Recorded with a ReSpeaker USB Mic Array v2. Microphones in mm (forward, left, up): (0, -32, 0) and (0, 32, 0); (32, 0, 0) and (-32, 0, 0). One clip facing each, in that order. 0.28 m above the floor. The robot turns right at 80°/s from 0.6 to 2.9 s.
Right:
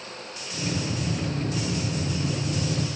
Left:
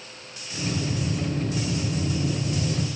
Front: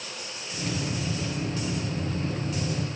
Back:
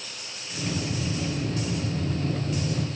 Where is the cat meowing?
I don't hear a cat meowing.